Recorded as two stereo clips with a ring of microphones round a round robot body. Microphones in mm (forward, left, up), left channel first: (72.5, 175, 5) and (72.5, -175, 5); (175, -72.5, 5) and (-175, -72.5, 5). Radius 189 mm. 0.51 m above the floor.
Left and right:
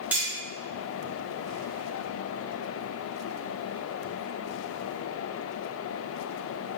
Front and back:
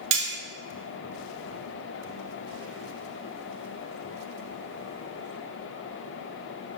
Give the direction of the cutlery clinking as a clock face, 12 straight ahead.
6 o'clock.